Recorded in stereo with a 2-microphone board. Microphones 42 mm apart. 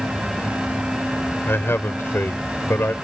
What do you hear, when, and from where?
1.4 s a man speaking: 75° left (ahead or behind)